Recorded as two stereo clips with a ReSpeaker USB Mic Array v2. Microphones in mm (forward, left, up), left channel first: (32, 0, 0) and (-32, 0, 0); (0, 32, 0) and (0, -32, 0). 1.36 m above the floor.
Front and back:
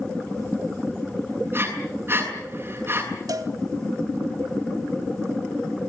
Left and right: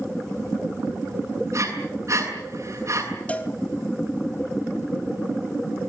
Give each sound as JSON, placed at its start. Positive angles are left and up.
{"t": 1.5, "sound": "breathing", "azimuth_deg": -125, "distance_m": 7.0}
{"t": 3.3, "sound": "a cowbell", "azimuth_deg": 160, "distance_m": 2.0}